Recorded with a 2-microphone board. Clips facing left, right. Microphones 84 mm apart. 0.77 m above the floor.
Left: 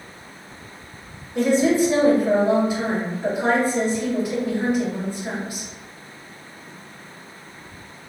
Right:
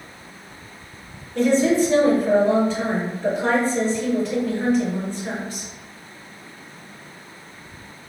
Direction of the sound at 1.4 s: 15° left (ahead or behind).